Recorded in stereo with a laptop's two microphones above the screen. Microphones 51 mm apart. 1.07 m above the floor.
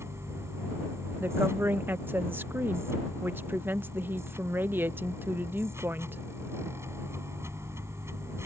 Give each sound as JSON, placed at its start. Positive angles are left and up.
{"t": 0.0, "sound": "a machine running", "side_deg": -65}
{"t": 1.2, "sound": "a woman speaking", "side_deg": -45}